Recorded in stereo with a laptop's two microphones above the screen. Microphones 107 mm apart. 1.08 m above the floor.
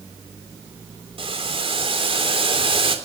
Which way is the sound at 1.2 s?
60° right (ahead or behind).